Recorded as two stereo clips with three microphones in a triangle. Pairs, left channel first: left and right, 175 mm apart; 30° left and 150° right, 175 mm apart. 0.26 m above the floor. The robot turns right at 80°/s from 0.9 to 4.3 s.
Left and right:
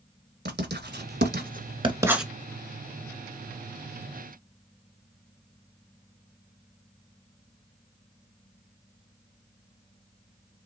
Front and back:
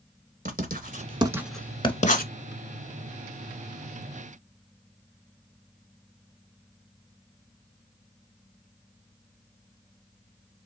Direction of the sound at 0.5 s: 110° right.